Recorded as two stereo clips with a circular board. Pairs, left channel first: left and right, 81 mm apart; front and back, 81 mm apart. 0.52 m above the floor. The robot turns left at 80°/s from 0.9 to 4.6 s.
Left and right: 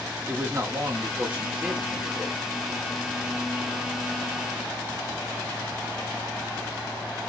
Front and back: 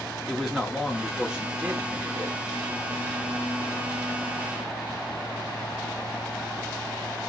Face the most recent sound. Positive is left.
turn(degrees=-25)